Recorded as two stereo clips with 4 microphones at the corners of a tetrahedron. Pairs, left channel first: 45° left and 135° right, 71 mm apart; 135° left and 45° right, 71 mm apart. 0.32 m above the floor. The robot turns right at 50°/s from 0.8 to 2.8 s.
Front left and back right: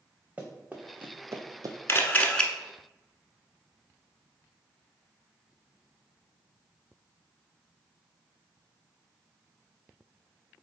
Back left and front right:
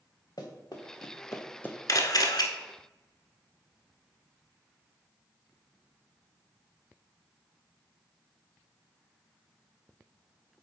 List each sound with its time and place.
0.4 s running footsteps: 155° left, 1.8 m; by 1.8 s 155° right, 0.9 m
1.9 s a camera shutter: 100° left, 0.9 m; by 2.5 s 130° left, 0.9 m